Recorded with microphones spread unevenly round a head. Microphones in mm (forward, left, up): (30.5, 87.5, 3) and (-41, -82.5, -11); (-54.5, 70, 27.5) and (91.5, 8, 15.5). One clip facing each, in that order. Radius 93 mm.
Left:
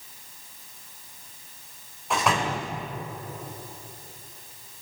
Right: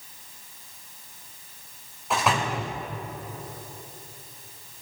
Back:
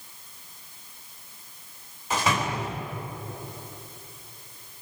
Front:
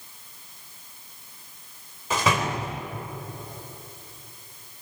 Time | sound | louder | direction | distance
2.1 | a door slam | even, front 2 dB | 25° right | 4 m